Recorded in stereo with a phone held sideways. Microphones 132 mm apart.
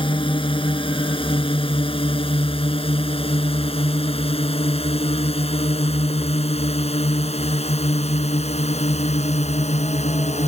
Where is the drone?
45° left (ahead or behind); by 10.5 s 65° left (ahead or behind).